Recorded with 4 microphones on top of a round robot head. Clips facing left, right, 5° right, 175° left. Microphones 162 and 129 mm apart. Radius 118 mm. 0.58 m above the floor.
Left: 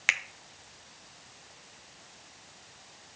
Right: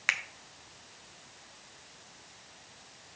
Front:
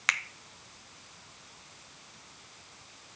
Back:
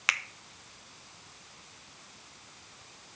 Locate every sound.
0.1 s a finger snap: 95° left, 0.8 m